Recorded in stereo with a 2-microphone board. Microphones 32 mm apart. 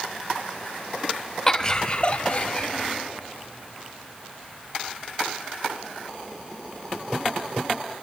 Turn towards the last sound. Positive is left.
turn(degrees=35)  # may be behind; listen again after turning